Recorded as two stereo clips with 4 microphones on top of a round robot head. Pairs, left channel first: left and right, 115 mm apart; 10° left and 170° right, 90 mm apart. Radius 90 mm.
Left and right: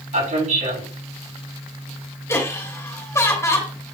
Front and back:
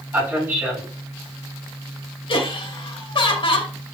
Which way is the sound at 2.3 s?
25° left.